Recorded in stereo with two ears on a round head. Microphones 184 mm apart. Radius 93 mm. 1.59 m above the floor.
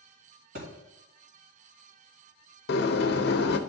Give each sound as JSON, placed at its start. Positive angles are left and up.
{"t": 0.6, "sound": "a thud", "side_deg": -60, "distance_m": 2.5}
{"t": 2.7, "sound": "a sliding door", "side_deg": 50, "distance_m": 0.6}